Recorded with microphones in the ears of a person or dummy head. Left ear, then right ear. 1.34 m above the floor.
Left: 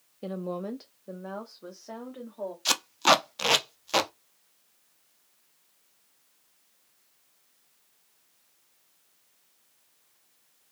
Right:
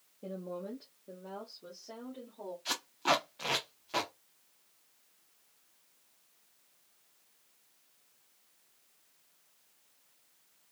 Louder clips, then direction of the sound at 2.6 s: Left 9 dB; 85° left.